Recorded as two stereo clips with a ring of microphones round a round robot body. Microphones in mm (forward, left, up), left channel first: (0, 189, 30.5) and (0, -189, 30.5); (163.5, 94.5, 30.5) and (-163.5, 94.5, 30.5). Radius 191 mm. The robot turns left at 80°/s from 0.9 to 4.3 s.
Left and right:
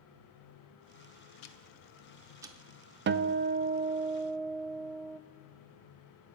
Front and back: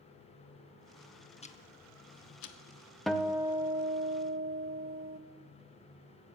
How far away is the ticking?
About 0.8 m.